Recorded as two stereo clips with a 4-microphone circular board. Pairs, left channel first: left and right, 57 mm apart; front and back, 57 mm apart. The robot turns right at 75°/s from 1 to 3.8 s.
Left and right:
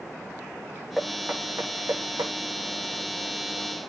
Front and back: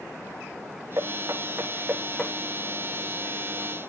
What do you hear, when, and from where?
1.0 s knocking: straight behind, 6.5 m; by 2.3 s 80° right, 6.5 m